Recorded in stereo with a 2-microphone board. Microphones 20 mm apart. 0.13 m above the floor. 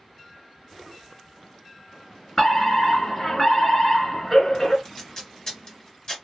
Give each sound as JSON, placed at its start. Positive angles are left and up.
{"t": 2.4, "sound": "a fire alarm", "side_deg": 20, "distance_m": 2.5}
{"t": 4.8, "sound": "tape being pulled", "side_deg": 35, "distance_m": 1.9}